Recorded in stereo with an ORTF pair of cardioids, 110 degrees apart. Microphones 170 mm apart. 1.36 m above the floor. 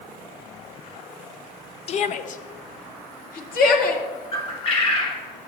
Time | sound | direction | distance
1.9 | a shout | 40° left | 0.6 m
4.3 | a bird | 35° left | 1.4 m